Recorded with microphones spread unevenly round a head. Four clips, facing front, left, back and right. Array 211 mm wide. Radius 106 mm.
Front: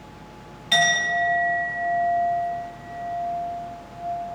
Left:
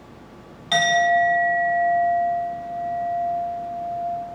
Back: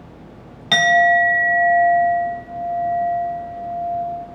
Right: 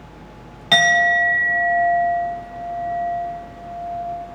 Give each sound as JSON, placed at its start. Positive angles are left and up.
{"t": 0.7, "sound": "a clink", "azimuth_deg": -120, "distance_m": 0.8}